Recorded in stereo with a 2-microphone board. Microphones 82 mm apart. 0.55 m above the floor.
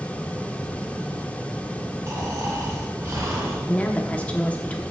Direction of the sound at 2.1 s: 40° right (ahead or behind).